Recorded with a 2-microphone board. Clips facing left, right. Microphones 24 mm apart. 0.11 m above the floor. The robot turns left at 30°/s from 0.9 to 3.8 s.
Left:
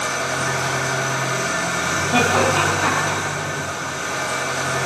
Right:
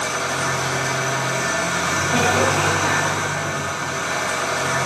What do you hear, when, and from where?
0.0 s an engine running: straight ahead, 6 m; by 4.9 s 85° right, 6 m
2.1 s laughter: 30° left (ahead or behind), 3.5 m; by 3.2 s 55° left (ahead or behind), 3.5 m